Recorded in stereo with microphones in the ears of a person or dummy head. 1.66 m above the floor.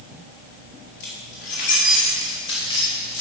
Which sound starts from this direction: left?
Keys jangling, at 1.0 s.